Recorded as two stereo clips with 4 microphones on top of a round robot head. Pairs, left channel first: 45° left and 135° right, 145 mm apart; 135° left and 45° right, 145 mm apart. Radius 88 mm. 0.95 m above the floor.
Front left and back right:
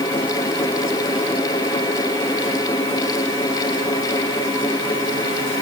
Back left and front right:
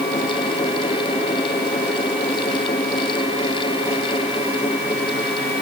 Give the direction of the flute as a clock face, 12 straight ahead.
I don't hear a flute.